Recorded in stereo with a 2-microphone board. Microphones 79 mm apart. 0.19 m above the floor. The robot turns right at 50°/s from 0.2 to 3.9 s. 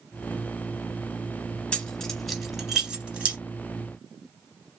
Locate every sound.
1.7 s keys jangling: 10° left (ahead or behind), 0.7 m; by 3.4 s 20° right (ahead or behind), 0.7 m